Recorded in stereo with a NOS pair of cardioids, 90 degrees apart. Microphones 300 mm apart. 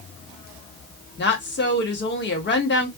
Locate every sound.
1.2 s a woman speaking: 40° left, 1.2 m